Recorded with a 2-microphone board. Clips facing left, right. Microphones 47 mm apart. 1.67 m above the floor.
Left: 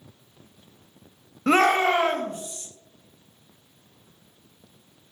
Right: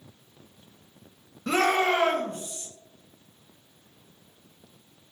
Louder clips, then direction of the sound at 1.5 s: Left 4 dB; 55° left (ahead or behind).